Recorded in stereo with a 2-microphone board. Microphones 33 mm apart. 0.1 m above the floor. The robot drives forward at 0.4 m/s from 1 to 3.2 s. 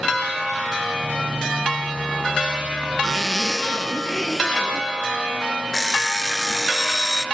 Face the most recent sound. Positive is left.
turn(degrees=10)  # may be behind; listen again after turning